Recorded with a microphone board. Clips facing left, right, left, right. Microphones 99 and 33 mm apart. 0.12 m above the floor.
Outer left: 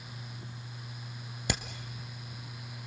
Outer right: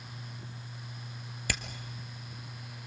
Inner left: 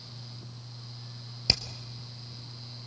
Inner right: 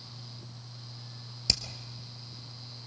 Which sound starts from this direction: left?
Hammering, at 1.5 s.